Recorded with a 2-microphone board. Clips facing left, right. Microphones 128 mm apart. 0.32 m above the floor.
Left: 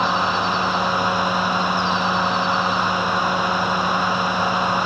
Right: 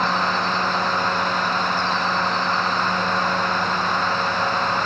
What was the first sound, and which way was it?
Only background noise.